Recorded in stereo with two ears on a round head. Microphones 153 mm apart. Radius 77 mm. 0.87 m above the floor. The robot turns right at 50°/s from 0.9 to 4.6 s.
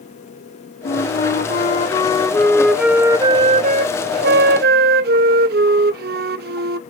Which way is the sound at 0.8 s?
90° left.